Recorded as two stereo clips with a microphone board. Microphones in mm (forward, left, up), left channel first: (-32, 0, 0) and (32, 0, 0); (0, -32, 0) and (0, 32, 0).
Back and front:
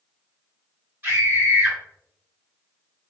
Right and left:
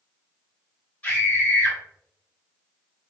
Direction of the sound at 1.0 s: 40° right.